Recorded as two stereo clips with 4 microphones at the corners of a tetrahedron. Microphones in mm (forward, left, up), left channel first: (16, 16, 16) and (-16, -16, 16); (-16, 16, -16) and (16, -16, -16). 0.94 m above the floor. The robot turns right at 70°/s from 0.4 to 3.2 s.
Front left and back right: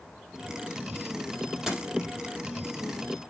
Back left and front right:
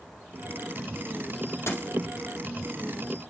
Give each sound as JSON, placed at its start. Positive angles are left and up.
{"t": 1.7, "sound": "a dropped coin", "azimuth_deg": 140, "distance_m": 5.5}